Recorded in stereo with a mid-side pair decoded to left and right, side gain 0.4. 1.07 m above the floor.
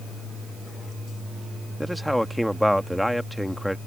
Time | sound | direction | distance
1.8 | a man speaking | 5° left | ?